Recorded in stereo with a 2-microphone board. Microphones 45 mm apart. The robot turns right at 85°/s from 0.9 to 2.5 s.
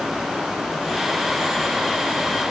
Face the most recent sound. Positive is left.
No sound to turn to.